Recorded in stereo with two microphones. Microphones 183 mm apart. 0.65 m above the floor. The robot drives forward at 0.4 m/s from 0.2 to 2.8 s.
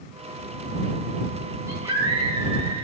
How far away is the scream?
About 4.5 m.